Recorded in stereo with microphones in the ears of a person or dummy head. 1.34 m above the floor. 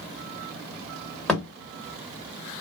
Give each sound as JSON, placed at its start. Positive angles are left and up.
{"t": 1.3, "sound": "a thud", "side_deg": 5, "distance_m": 1.5}